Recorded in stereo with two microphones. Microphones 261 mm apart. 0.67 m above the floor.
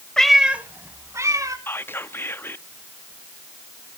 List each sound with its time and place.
0.2 s a cat meowing: 5° left (ahead or behind), 0.7 m; by 1.6 s 15° right (ahead or behind), 1.9 m
1.7 s whispering: 10° left (ahead or behind), 0.6 m